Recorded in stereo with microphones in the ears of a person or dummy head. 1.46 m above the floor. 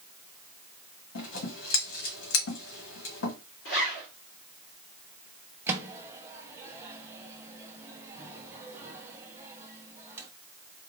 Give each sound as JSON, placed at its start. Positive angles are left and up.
{"t": 1.1, "sound": "scissors", "side_deg": 90, "distance_m": 1.6}
{"t": 3.6, "sound": "a zipper", "side_deg": 60, "distance_m": 1.8}
{"t": 5.7, "sound": "a microwave", "side_deg": -15, "distance_m": 0.7}